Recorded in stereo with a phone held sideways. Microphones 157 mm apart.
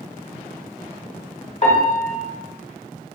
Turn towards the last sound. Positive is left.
turn(degrees=45)  # may be behind; listen again after turning